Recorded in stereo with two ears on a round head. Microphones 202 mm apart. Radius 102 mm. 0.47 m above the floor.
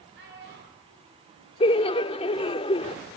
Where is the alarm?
No alarm in this recording.